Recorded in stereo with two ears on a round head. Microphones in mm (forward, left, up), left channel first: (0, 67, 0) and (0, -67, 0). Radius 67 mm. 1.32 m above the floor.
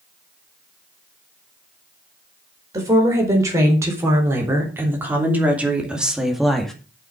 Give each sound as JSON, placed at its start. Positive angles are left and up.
{"t": 2.7, "sound": "a woman speaking", "side_deg": -25, "distance_m": 4.5}